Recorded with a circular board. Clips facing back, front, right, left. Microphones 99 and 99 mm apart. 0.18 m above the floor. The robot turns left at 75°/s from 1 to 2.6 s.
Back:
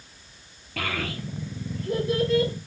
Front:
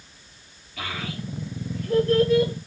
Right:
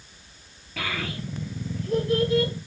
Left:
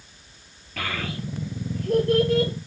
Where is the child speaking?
175° right, 3 m; by 2.5 s 70° left, 3 m.